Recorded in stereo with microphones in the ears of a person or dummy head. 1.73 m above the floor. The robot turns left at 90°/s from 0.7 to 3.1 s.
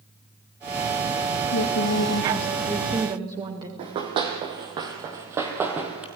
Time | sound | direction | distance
1.5 | a woman speaking | 115° left | 2 m
3.8 | running footsteps | 35° right (ahead or behind) | 3 m